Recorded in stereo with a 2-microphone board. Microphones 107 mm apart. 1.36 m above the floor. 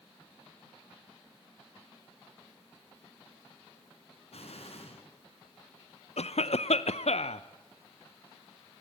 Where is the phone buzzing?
I don't hear a phone buzzing.